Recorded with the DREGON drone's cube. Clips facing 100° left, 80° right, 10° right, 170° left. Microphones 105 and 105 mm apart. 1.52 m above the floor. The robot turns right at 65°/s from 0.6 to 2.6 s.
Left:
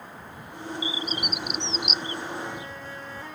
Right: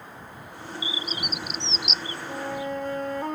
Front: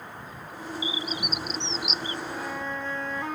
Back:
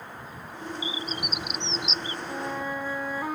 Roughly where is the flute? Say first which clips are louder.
Right 4 dB, back 1 dB; behind right.